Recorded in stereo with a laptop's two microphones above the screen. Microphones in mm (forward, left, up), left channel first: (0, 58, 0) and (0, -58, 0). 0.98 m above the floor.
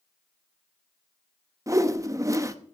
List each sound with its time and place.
1.7 s a whoosh: 25° right (ahead or behind), 0.8 m